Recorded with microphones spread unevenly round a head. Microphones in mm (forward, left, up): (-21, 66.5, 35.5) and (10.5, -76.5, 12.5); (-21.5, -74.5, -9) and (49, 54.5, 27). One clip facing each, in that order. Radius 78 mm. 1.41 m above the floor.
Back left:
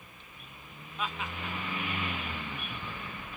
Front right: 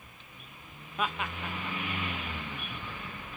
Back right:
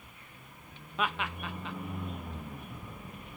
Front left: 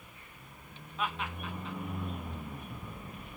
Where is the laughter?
110° right, 0.8 m.